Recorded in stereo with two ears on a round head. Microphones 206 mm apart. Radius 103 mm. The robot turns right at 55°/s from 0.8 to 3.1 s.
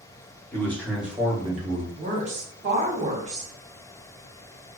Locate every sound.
0.5 s a man speaking: 170° left, 1.1 m; by 1.9 s 130° right, 1.1 m
2.0 s a woman speaking: 130° right, 0.9 m; by 3.5 s 65° right, 0.9 m